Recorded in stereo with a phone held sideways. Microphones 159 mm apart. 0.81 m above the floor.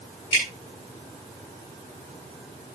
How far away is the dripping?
About 9 m.